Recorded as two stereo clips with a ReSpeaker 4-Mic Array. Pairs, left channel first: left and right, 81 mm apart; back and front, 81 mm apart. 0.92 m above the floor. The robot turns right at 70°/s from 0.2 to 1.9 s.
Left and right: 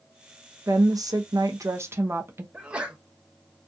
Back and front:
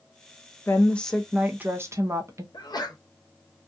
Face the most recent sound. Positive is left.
turn(degrees=-165)